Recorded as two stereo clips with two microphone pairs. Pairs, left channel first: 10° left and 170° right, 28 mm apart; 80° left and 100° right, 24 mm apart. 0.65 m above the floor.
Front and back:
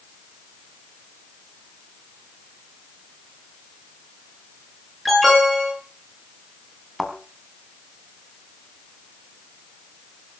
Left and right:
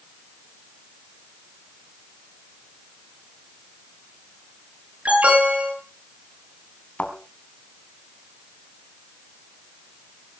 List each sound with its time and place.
5.0 s an alarm: 80° right, 8.5 m
7.0 s a thud: 100° left, 3 m